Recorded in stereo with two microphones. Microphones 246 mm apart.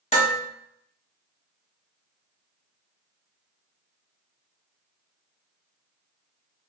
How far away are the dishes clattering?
About 1.1 m.